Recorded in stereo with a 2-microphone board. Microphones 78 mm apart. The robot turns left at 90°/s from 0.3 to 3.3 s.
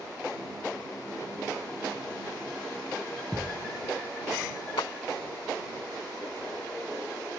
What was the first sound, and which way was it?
A thud, 20° left (ahead or behind).